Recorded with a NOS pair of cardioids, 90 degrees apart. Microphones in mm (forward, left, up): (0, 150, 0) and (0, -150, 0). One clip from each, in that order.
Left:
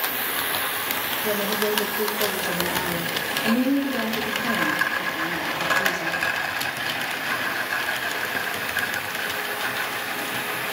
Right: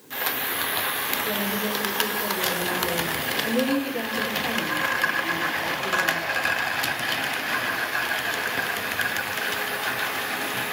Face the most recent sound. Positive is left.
turn(degrees=55)